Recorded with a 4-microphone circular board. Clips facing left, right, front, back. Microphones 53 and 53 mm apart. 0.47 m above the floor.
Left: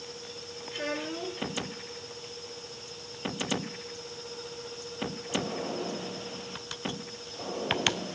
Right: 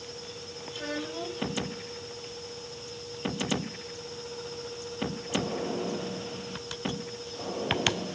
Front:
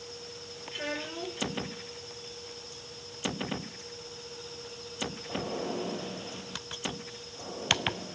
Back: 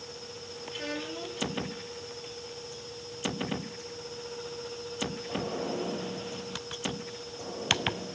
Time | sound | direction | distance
0.7 | a child speaking | 75° left | 6 m